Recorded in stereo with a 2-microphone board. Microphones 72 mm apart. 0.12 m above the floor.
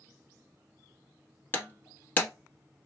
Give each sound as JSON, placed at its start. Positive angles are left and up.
{"t": 1.5, "sound": "breaking glass", "side_deg": 25, "distance_m": 0.9}